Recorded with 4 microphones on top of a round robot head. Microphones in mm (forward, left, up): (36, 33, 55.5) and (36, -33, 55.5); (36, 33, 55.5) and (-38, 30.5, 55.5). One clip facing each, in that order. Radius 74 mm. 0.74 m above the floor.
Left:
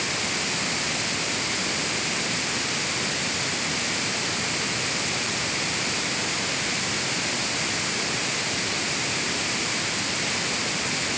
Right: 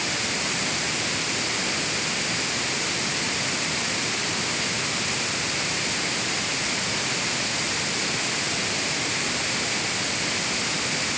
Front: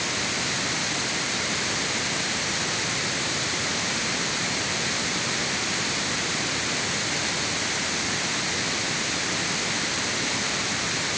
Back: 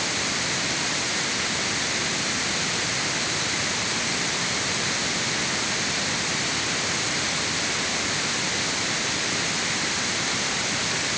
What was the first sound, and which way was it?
Only background noise.